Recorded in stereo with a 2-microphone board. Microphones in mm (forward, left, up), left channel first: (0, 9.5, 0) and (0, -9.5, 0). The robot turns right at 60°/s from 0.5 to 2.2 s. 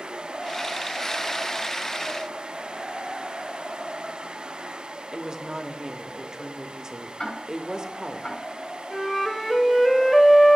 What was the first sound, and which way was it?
A woman speaking, 40° right (ahead or behind).